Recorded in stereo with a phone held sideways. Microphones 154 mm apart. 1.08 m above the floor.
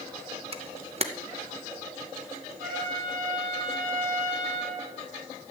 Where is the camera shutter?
40° right (ahead or behind), 0.7 m.